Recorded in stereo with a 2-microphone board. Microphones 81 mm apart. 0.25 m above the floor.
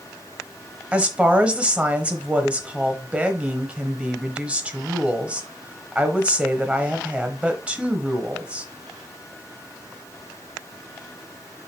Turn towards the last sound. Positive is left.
turn(degrees=-15)  # may be behind; listen again after turning